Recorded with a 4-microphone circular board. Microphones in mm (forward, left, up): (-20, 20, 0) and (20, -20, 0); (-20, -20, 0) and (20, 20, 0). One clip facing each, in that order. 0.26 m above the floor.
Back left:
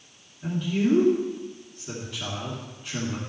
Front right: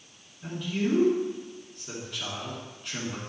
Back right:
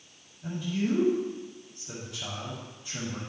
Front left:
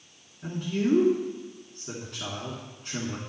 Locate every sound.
0.4 s a man speaking: 50° left, 2.5 m